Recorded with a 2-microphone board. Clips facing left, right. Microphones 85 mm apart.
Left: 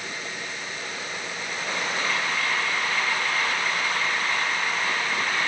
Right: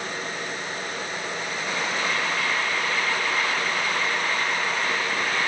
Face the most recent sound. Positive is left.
No sound to turn to.